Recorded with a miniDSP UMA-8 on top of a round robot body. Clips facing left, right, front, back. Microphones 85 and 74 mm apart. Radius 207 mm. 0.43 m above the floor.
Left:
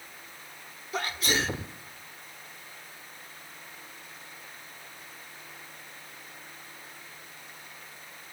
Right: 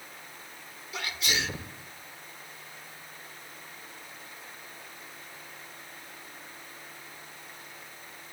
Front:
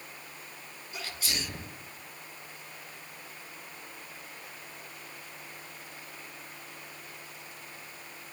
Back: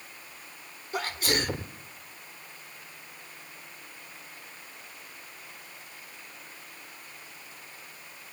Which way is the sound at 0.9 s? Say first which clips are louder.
Left 4 dB, back 9 dB; 140° left.